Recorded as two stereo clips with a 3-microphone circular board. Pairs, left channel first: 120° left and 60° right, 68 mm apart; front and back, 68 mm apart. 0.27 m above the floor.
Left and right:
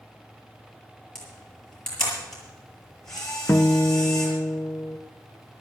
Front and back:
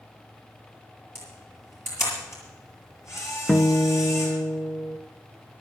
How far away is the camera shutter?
About 7 m.